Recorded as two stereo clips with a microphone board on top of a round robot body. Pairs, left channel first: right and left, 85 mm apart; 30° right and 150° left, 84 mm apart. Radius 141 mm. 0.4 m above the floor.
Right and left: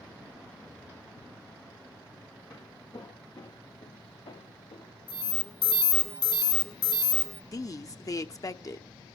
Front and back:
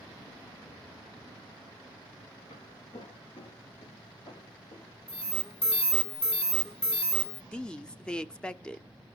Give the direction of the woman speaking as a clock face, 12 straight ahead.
3 o'clock.